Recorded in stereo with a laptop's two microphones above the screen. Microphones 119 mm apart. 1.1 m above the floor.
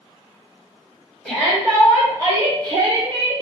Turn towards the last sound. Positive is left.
turn(degrees=-60)  # may be behind; listen again after turning